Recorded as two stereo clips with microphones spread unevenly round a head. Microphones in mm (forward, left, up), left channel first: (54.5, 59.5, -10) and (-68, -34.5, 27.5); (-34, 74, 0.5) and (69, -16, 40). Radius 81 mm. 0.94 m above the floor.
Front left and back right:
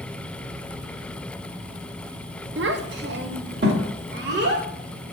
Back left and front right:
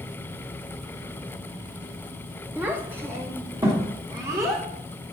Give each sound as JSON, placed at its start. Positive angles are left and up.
{"t": 2.6, "sound": "a child speaking", "azimuth_deg": -120, "distance_m": 0.8}